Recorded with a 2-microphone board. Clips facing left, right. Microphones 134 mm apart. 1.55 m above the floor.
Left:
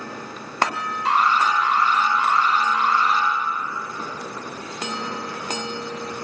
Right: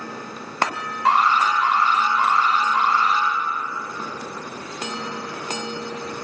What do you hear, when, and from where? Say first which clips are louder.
1.1 s an alarm: right 2 dB; 85° right, 2.5 m